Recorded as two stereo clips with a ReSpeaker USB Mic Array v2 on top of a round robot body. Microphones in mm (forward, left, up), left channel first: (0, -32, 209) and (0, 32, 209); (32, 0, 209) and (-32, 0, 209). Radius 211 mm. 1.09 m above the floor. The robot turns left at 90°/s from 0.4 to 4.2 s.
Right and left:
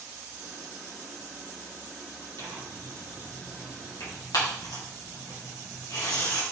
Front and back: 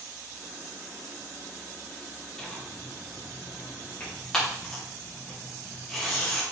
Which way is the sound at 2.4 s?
80° left.